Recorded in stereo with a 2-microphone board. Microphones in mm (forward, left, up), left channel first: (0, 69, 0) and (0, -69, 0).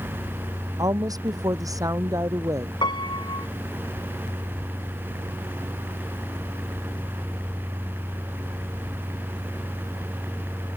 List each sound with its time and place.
0.8 s a woman speaking: 25° right (ahead or behind); by 2.7 s 20° right (ahead or behind)
2.8 s a piano: 30° left (ahead or behind)